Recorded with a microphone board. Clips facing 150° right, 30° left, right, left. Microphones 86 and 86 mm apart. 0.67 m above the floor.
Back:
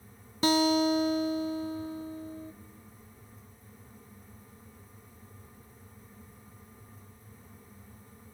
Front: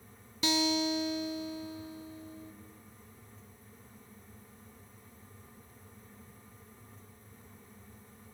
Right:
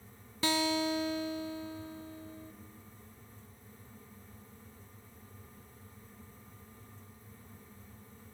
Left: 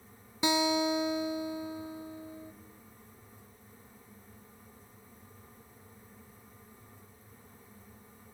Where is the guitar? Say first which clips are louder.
Back 6 dB, left 3 dB; 160° left, 0.6 m.